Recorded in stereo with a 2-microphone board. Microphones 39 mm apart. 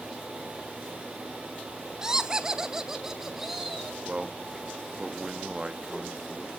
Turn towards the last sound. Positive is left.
turn(degrees=-20)  # may be behind; listen again after turning